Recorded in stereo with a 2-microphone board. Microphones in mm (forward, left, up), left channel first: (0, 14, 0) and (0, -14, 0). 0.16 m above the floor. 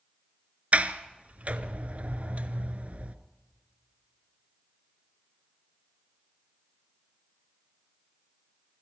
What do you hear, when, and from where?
0.7 s a sliding door: 55° right (ahead or behind), 1.1 m